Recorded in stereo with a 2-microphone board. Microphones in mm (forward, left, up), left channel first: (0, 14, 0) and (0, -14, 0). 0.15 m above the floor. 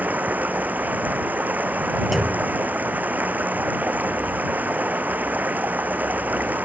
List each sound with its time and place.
0.0 s running water: 80° right
2.1 s a clunk: centre (ahead or behind)